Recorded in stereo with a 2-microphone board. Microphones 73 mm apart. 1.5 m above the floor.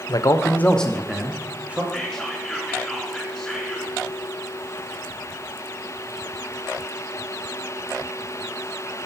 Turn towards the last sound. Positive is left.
turn(degrees=0)  # may be behind; listen again after turning